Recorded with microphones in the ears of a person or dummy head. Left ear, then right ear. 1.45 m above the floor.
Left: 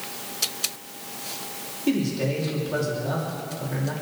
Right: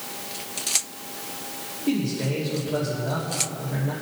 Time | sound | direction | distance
1.9 | a man speaking | 85° left | 3 m